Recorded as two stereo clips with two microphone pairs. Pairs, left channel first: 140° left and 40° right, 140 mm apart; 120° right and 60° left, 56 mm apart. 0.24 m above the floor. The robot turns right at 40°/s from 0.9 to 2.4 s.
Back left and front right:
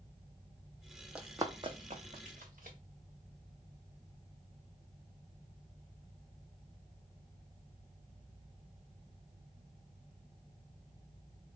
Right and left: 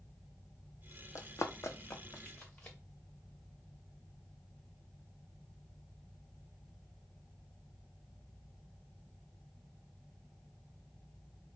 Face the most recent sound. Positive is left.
turn(degrees=-50)